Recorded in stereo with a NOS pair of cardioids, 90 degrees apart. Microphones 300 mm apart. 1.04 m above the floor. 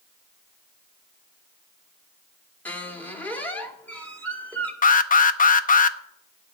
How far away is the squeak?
About 1.8 m.